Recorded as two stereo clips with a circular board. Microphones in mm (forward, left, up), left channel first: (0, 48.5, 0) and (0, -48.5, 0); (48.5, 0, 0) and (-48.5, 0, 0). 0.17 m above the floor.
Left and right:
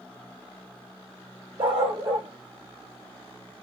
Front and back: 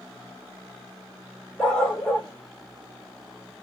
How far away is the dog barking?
About 1.5 m.